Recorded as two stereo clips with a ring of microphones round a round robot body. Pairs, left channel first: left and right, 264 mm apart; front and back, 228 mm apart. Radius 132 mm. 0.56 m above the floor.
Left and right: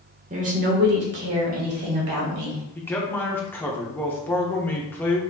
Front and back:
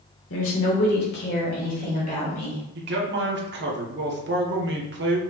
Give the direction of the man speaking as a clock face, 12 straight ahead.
6 o'clock.